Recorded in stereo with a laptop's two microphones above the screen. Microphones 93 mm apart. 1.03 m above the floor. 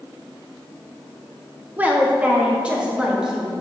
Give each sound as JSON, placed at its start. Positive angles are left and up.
{"t": 1.8, "sound": "a woman speaking", "side_deg": -15, "distance_m": 0.9}